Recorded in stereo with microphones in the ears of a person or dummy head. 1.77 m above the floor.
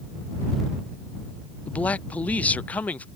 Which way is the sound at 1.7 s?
10° left (ahead or behind).